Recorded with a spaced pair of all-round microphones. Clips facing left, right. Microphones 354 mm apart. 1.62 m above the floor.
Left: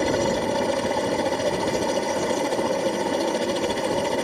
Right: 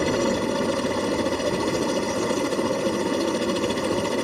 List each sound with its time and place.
0.0 s a helicopter: 15° right (ahead or behind)